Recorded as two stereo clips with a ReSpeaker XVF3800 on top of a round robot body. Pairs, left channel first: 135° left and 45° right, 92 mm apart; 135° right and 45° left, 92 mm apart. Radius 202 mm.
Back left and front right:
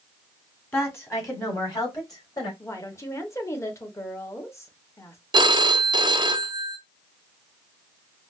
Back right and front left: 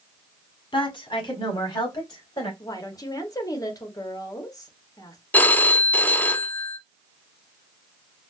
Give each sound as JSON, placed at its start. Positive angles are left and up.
{"t": 0.7, "sound": "a woman speaking", "azimuth_deg": -160, "distance_m": 1.7}
{"t": 2.6, "sound": "a woman speaking", "azimuth_deg": -175, "distance_m": 1.2}
{"t": 5.3, "sound": "a phone ringing", "azimuth_deg": -65, "distance_m": 0.6}